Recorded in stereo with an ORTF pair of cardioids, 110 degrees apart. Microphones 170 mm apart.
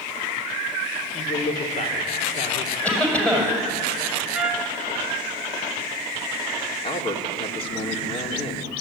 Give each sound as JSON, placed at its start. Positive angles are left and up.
{"t": 1.1, "sound": "a man speaking", "azimuth_deg": 45, "distance_m": 3.0}
{"t": 2.8, "sound": "a cough", "azimuth_deg": 10, "distance_m": 6.5}
{"t": 4.3, "sound": "a trumpet", "azimuth_deg": -5, "distance_m": 1.8}
{"t": 6.8, "sound": "a man speaking", "azimuth_deg": 35, "distance_m": 3.0}